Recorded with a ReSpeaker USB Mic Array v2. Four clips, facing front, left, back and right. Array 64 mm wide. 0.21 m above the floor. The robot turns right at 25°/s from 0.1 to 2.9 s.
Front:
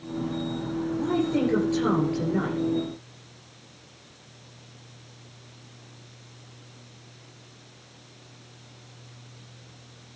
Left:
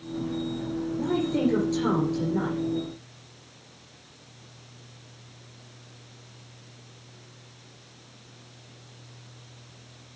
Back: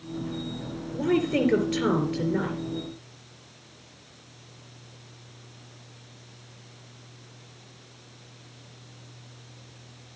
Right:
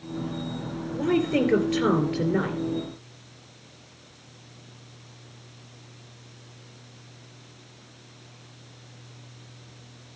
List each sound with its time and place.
0.9 s a woman speaking: 135° right, 3 m; by 2.6 s 95° right, 3 m